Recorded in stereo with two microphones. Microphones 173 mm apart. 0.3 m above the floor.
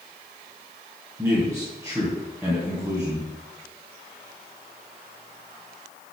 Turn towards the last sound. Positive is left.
turn(degrees=-15)  # may be behind; listen again after turning